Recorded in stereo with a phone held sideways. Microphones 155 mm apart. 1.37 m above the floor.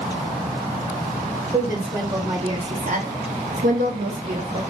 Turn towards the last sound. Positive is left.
turn(degrees=-35)  # may be behind; listen again after turning